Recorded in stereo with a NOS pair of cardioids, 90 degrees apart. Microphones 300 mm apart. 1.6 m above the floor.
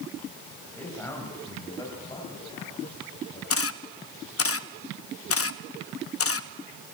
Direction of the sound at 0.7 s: 5° left.